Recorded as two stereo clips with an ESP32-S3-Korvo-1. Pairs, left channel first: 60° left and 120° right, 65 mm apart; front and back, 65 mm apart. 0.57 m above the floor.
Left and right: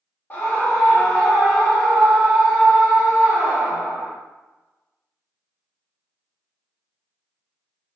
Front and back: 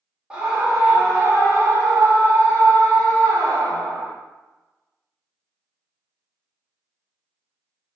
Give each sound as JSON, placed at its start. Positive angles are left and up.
{"t": 0.3, "sound": "a scream", "azimuth_deg": 110, "distance_m": 1.7}